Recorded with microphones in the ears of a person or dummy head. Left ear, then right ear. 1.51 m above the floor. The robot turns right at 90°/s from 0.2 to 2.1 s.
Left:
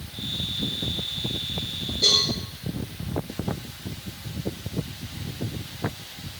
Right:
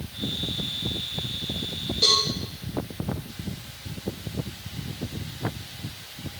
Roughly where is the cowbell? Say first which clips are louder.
Left 1 dB; right.